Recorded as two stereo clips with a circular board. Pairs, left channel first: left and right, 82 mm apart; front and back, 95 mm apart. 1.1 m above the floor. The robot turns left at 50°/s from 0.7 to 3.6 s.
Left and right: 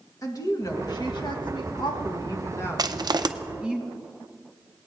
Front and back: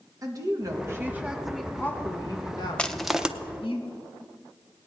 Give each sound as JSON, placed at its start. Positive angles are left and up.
{"t": 0.2, "sound": "a woman speaking", "azimuth_deg": 130, "distance_m": 1.7}
{"t": 2.8, "sound": "crushing", "azimuth_deg": -75, "distance_m": 0.6}